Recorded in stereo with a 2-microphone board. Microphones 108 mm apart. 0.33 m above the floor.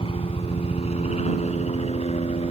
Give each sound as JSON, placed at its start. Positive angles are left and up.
{"t": 0.0, "sound": "a helicopter", "side_deg": 60}